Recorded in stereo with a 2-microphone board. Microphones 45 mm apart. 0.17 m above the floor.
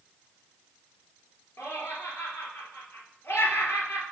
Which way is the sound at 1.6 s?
60° left (ahead or behind).